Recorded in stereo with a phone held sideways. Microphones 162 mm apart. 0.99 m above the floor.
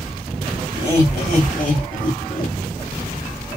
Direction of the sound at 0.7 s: 30° left (ahead or behind).